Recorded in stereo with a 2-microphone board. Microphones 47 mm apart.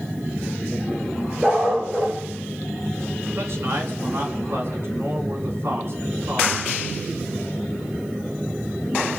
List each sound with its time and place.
1.4 s a dog barking: 10° right (ahead or behind), 6 m
3.4 s a man speaking: 60° right (ahead or behind), 7.5 m